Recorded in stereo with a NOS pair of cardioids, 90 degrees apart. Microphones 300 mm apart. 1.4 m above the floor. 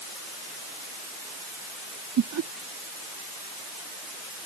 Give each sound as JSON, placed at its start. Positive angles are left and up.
{"t": 2.2, "sound": "laughter", "azimuth_deg": -60}